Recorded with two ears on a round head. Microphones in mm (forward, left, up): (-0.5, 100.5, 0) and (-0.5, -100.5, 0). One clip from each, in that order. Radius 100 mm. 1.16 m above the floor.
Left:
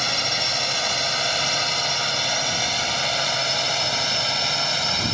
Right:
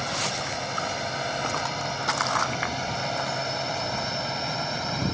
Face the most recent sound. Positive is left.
turn(degrees=75)  # may be behind; listen again after turning